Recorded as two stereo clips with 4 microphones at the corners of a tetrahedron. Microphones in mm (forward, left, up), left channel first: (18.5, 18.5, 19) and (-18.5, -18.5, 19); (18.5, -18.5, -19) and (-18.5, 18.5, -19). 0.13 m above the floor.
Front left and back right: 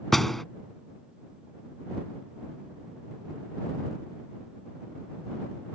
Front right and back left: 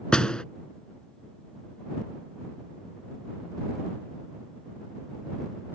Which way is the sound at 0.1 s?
30° right.